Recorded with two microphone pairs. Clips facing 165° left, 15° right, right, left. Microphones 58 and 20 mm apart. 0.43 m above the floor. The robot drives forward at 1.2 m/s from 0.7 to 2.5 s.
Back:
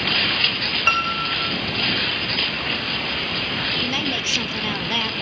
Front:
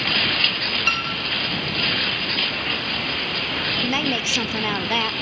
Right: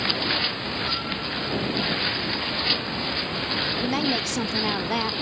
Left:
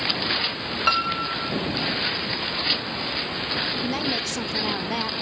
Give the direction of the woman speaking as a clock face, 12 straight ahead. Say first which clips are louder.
Front 2 dB, right 1 dB; 1 o'clock.